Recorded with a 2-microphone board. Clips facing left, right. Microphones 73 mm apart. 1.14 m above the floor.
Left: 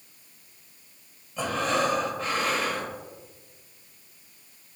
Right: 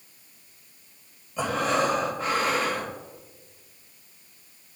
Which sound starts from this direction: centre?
Breathing, at 1.4 s.